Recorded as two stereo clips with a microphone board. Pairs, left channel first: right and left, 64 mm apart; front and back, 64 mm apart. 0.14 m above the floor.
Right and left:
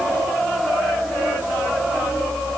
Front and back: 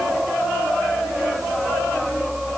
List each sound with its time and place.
Only background noise.